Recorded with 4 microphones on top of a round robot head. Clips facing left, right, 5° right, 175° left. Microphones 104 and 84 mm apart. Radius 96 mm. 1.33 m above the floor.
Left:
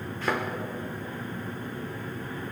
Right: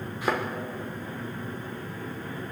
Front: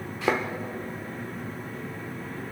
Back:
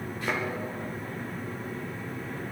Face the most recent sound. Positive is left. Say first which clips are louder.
# right 1 dB, front 6 dB
turn(degrees=-10)